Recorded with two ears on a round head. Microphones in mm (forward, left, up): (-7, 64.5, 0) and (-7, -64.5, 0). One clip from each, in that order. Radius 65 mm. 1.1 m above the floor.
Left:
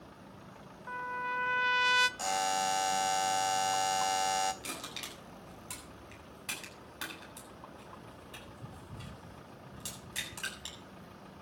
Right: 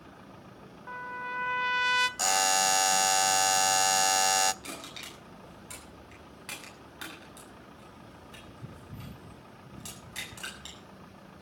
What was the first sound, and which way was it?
A trumpet, 5° left (ahead or behind).